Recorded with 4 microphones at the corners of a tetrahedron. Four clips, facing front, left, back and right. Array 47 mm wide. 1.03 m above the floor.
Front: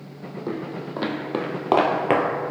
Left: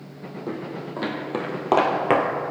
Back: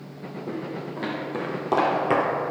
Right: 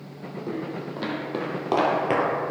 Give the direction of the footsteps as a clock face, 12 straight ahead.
12 o'clock.